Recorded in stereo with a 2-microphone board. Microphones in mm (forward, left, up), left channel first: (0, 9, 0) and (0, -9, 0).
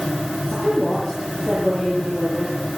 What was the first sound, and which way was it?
A woman speaking, 5° right (ahead or behind).